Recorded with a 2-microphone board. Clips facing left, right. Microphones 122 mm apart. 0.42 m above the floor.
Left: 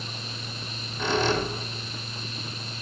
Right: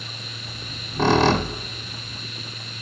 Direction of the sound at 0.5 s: 70° right (ahead or behind).